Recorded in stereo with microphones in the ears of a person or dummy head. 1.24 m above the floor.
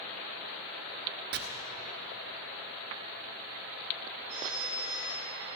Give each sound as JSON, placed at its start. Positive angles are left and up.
{"t": 1.3, "sound": "chopping", "side_deg": -55, "distance_m": 1.3}
{"t": 4.3, "sound": "a phone ringing", "side_deg": -10, "distance_m": 7.0}